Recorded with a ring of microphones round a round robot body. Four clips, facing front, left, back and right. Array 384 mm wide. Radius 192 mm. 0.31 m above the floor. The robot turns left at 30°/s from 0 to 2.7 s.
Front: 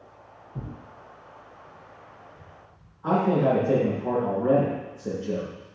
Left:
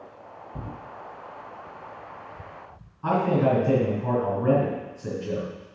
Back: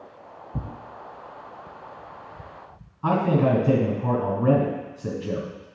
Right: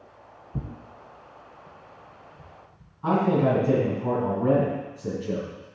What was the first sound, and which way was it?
Tearing paper, 150° right.